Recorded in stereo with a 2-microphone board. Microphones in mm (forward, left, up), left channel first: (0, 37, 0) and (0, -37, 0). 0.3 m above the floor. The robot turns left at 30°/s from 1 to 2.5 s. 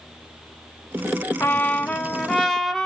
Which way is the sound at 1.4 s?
40° left.